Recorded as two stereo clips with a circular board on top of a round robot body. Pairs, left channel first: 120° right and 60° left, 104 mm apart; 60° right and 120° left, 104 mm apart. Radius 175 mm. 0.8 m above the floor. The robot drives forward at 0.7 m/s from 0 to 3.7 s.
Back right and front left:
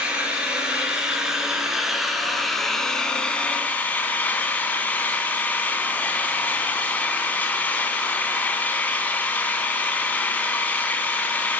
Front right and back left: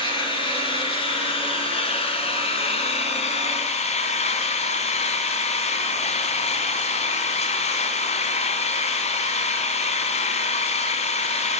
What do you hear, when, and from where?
0.0 s an engine running: 20° right, 4.5 m; by 11.6 s 45° right, 2 m